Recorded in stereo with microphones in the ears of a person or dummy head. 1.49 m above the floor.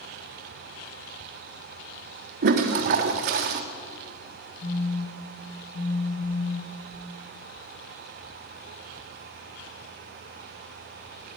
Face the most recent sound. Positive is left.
turn(degrees=35)  # may be behind; listen again after turning